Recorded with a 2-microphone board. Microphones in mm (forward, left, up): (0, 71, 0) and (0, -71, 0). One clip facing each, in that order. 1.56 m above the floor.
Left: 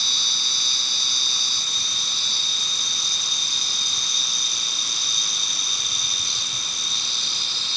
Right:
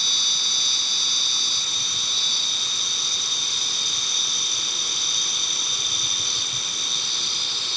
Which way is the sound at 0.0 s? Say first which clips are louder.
Even; 65° right (ahead or behind).